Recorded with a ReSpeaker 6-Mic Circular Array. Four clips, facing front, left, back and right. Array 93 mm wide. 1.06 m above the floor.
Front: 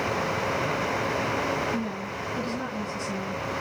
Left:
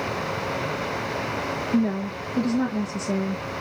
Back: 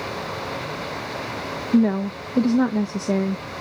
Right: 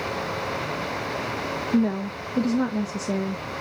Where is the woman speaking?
170° right, 1.2 m.